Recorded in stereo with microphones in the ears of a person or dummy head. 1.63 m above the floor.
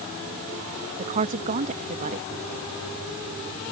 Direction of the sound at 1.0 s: 35° right (ahead or behind).